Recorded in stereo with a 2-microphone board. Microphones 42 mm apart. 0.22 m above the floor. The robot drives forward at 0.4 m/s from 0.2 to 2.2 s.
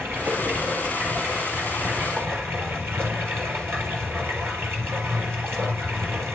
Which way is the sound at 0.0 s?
70° right (ahead or behind).